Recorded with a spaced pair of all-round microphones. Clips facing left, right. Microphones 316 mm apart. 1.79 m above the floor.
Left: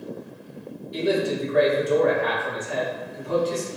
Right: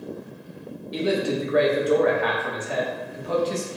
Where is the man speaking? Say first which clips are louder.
Even; 80° right, 1.0 m.